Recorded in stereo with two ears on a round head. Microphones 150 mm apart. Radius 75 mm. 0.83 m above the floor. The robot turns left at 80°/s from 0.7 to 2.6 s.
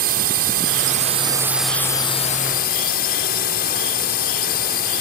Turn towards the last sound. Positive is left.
turn(degrees=105)